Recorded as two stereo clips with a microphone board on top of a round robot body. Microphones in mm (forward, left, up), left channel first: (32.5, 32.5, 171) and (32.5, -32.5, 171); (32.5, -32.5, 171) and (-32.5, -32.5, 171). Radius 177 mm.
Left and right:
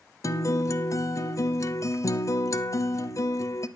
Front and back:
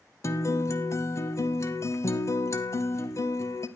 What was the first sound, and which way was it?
A guitar, 45° left.